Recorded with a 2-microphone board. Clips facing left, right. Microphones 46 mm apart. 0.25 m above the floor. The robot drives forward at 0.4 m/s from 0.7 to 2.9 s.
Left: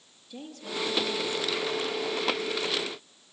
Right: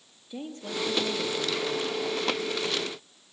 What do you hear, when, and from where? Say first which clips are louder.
0.3 s a woman speaking: right 2 dB; 25° right (ahead or behind), 5.5 m